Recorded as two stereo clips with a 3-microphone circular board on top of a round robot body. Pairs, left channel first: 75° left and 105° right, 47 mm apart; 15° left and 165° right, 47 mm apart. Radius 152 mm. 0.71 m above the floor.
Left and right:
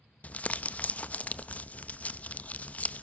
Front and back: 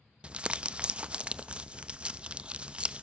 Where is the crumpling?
130° left, 0.7 m.